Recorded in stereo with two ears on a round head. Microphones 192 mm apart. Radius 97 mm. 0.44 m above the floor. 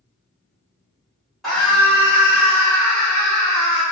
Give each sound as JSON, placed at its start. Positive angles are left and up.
{"t": 1.4, "sound": "a scream", "side_deg": 0, "distance_m": 1.2}